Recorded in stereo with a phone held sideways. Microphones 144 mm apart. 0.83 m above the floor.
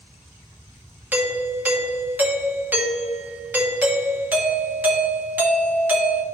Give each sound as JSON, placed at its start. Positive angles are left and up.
{"t": 1.1, "sound": "a doorbell", "side_deg": -15, "distance_m": 0.9}